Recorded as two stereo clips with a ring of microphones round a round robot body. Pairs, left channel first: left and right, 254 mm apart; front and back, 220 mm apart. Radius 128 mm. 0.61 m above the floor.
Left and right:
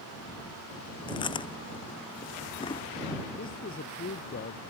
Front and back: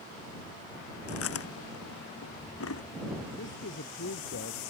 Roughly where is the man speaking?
Ahead left.